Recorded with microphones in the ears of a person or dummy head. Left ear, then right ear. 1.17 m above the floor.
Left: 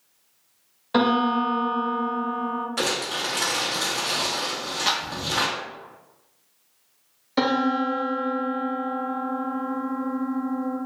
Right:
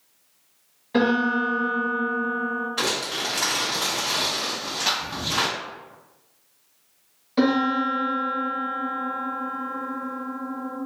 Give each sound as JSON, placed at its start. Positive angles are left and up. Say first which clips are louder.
{"t": 0.9, "sound": "a piano", "louder": "left 1 dB", "side_deg": 55, "distance_m": 0.9}
{"t": 2.8, "sound": "crumpling", "louder": "left 1 dB", "side_deg": 35, "distance_m": 0.7}
{"t": 4.9, "sound": "a clap", "louder": "even", "side_deg": 5, "distance_m": 0.5}
{"t": 7.4, "sound": "a piano", "louder": "right 1 dB", "side_deg": 30, "distance_m": 0.7}